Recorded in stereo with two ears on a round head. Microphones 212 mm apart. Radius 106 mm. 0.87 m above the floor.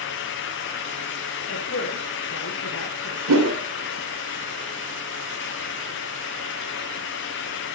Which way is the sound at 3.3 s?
80° right.